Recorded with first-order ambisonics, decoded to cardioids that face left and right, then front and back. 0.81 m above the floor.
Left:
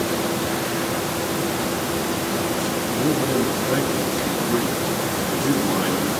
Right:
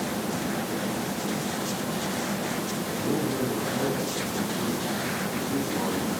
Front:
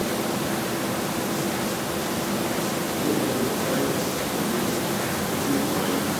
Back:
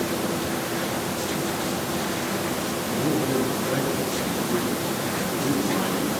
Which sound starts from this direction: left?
A man speaking, at 2.9 s.